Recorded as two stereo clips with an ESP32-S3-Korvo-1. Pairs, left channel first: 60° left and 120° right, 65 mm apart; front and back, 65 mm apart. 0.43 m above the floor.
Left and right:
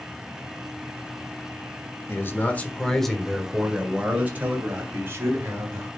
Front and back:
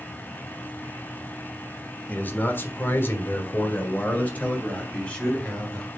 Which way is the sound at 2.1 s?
45° left.